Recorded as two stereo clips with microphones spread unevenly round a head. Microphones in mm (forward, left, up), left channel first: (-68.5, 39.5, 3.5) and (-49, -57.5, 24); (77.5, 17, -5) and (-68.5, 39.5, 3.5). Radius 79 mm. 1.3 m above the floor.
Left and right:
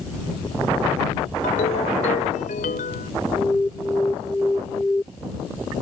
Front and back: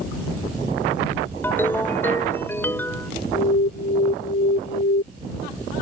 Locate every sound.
1.4 s a ringtone: 70° left
3.3 s an alarm: 15° left